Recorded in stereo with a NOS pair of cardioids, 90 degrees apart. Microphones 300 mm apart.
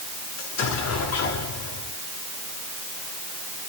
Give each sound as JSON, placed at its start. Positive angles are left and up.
{"t": 0.4, "sound": "an explosion", "azimuth_deg": 60, "distance_m": 8.5}